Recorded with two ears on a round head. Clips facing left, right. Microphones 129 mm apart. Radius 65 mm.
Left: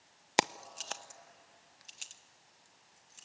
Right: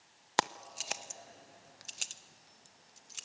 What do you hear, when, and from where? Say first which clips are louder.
0.4 s keys jangling: left 1 dB; 20° left (ahead or behind), 0.7 m; by 3.2 s 80° right, 1.8 m